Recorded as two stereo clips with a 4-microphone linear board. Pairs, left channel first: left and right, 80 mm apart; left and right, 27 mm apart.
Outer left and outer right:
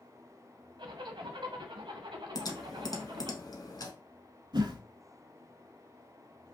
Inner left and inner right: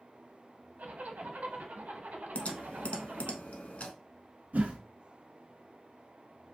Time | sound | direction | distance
0.8 | a zipper | 80° right | 0.6 m
2.4 | typing on a keyboard | 55° left (ahead or behind) | 0.5 m
4.5 | a whoosh | 70° right (ahead or behind) | 0.6 m